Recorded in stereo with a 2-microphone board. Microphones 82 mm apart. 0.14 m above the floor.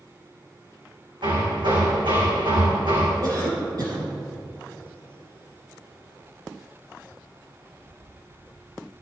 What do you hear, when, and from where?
1.2 s hammering: 80° right, 4.5 m
3.2 s a cough: 50° right (ahead or behind), 4.5 m